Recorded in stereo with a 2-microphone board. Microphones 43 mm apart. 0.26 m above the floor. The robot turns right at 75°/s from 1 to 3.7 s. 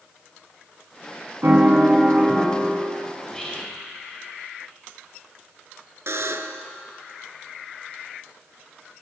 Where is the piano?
75° right, 1.5 m; by 2.9 s 30° left, 1.5 m.